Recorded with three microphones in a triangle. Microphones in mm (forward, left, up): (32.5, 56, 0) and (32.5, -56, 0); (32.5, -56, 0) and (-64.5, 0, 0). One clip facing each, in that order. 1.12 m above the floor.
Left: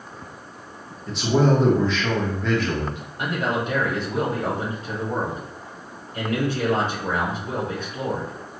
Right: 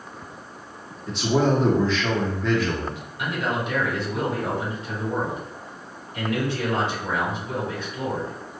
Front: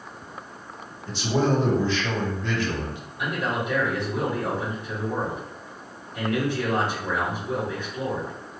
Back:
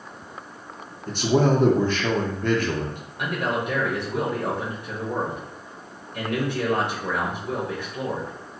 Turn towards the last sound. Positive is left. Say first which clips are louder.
# left 2 dB, back 1 dB
turn(degrees=135)